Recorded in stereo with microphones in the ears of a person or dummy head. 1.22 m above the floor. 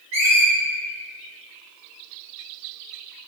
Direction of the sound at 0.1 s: 45° right (ahead or behind).